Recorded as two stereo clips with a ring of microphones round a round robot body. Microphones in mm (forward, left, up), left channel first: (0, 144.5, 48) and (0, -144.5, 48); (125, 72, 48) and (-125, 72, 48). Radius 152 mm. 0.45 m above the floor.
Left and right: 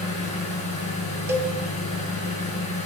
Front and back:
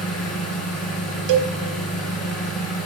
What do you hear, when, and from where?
0.0 s an engine running: 20° left, 4 m
1.3 s a cowbell: 170° right, 0.9 m